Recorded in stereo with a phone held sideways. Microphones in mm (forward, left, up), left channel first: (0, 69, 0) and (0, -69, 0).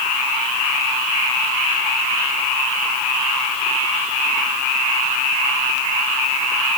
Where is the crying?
I don't hear crying.